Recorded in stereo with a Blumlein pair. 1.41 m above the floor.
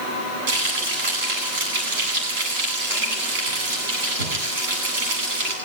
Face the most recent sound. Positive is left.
turn(degrees=-45)